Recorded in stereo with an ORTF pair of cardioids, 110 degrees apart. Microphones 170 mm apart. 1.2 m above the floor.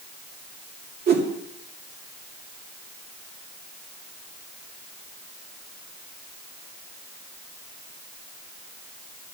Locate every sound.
1.1 s a whoosh: 65° right, 2.5 m